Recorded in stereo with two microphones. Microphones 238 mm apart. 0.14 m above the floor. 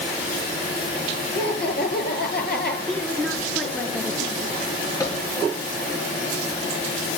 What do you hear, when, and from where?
1.4 s laughter: 45° left (ahead or behind), 2.5 m
2.9 s a woman speaking: centre (ahead or behind), 2 m
5.0 s a microwave: 15° left (ahead or behind), 2 m